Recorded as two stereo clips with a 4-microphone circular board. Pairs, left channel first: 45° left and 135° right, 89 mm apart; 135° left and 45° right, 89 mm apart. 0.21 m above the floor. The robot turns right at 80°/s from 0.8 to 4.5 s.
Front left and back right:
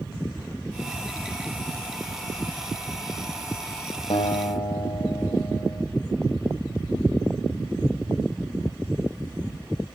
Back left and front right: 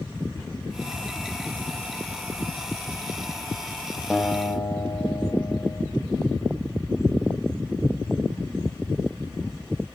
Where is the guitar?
45° left, 4.5 m; by 5.9 s 80° left, 4.5 m.